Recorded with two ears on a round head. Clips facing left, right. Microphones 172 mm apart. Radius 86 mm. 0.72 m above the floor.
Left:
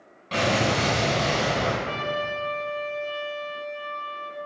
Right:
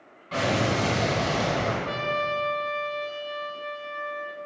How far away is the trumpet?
About 0.8 m.